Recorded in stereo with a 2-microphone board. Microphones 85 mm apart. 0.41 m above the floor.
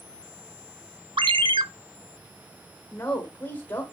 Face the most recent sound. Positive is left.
turn(degrees=25)  # may be behind; listen again after turning